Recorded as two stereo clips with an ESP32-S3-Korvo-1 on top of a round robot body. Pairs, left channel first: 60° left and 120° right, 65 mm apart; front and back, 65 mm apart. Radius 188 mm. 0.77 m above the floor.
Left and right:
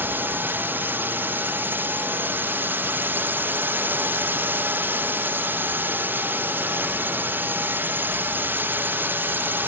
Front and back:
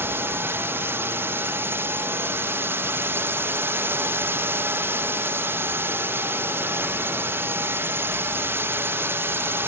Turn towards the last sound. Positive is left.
turn(degrees=-155)